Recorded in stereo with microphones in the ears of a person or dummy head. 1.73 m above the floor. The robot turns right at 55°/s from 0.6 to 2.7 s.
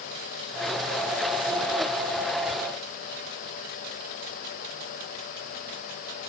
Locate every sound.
Only background noise.